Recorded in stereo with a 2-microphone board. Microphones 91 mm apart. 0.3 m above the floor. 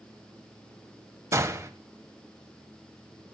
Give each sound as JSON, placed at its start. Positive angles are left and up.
{"t": 1.3, "sound": "a gunshot", "side_deg": -30, "distance_m": 0.9}